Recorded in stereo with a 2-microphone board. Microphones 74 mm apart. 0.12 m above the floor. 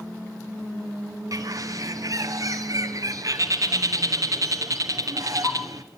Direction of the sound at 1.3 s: 50° right (ahead or behind).